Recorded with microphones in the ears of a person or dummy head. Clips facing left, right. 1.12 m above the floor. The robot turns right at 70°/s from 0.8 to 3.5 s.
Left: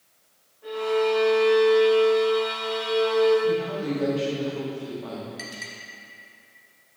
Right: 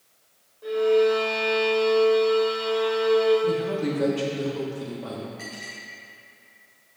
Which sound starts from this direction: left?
A clink, at 5.4 s.